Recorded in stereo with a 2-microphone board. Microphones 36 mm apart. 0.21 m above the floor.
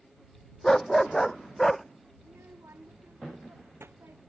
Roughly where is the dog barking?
Centre.